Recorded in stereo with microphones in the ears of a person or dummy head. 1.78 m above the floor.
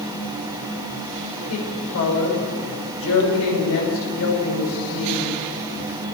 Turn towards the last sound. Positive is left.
turn(degrees=80)